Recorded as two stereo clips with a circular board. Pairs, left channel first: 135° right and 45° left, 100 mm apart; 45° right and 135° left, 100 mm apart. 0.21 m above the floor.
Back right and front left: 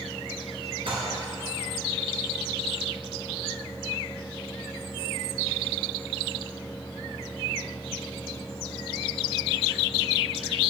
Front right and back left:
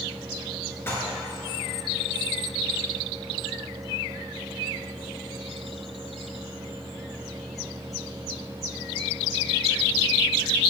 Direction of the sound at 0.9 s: 20° left.